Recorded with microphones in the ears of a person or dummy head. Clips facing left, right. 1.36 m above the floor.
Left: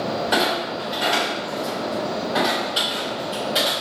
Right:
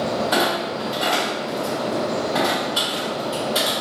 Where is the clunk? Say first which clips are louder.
Right 1 dB; 20° left (ahead or behind), 1.4 m.